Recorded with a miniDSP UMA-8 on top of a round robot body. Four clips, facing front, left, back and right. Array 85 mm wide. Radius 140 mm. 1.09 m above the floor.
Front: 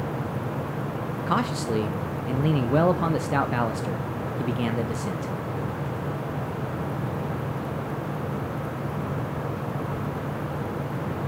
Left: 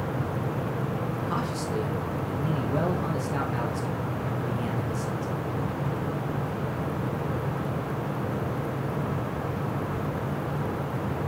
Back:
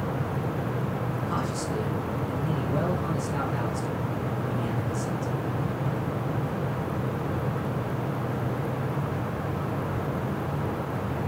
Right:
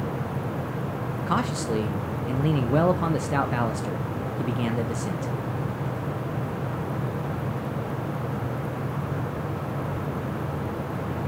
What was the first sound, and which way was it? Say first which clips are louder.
A man speaking: right 8 dB, front 8 dB; 40° right.